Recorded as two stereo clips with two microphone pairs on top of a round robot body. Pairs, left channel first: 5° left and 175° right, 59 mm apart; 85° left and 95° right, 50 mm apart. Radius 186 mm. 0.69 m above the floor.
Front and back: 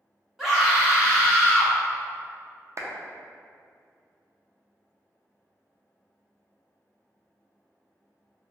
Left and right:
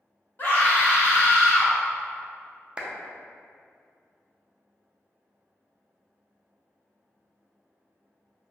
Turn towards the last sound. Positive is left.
turn(degrees=-175)